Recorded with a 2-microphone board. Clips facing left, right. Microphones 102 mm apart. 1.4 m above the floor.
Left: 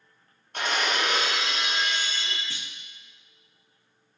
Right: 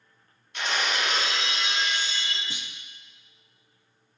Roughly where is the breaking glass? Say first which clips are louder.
Left 2 dB; left.